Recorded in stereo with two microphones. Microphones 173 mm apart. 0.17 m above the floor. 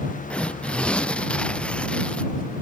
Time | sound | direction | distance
0.3 | tearing paper | 5° left (ahead or behind) | ?